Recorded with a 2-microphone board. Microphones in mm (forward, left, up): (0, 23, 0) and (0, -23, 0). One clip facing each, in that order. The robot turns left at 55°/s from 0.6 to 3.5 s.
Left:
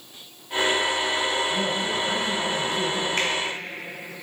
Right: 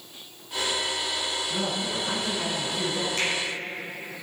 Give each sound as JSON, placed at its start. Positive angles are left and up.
{"t": 1.5, "sound": "a man speaking", "side_deg": -20, "distance_m": 1.2}
{"t": 3.2, "sound": "a finger snap", "side_deg": 45, "distance_m": 2.5}